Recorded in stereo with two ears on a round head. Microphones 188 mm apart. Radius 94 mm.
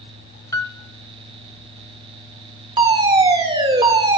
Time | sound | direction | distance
0.5 | a piano | 15° left (ahead or behind) | 0.7 m
2.8 | a fire alarm | 25° right (ahead or behind) | 2.0 m